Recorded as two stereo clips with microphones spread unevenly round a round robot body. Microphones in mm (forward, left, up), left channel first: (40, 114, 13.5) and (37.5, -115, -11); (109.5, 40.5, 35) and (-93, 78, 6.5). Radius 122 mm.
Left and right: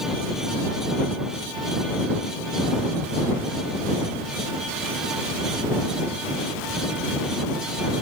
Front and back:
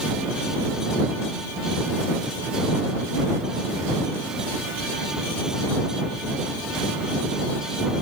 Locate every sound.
Only background noise.